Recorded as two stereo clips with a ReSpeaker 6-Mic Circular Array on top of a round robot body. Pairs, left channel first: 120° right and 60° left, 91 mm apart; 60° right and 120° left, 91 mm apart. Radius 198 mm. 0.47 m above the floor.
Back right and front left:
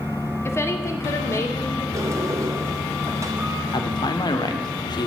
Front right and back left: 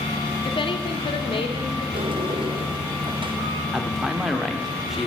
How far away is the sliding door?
About 1.9 m.